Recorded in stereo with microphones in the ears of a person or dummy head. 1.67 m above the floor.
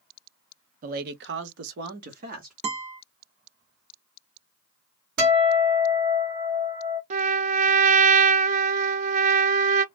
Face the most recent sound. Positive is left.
turn(degrees=-45)  # may be behind; listen again after turning